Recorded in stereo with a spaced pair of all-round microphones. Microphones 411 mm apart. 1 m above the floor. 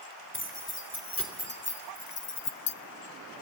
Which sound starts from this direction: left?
Keys jangling, at 0.3 s.